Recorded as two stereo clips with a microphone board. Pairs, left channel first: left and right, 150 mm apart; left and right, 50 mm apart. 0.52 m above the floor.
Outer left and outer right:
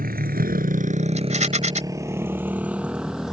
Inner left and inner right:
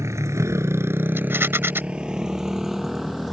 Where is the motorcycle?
80° right; by 3.3 s centre (ahead or behind).